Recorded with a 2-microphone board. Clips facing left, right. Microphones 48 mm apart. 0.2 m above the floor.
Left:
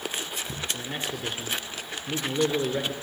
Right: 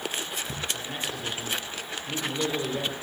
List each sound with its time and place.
0.7 s a man speaking: 45° left (ahead or behind), 2.5 m